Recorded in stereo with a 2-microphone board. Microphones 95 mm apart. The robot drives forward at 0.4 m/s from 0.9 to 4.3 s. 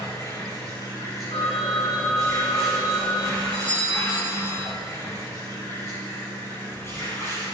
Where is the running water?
35° left (ahead or behind), 5.5 m; by 7.5 s 30° left (ahead or behind), 6.5 m.